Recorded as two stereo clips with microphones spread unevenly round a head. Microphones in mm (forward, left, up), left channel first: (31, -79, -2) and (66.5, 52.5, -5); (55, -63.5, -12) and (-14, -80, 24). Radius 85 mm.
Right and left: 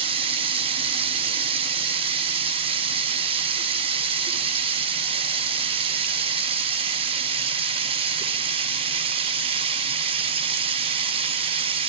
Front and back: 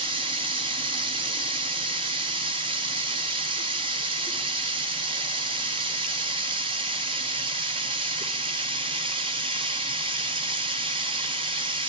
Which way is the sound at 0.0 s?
135° left.